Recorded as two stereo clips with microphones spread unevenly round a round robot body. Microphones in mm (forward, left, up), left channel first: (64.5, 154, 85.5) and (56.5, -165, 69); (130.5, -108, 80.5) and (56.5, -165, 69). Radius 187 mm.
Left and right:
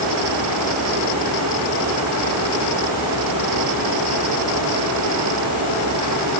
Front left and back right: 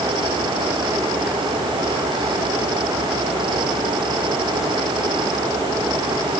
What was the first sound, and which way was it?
Only background noise.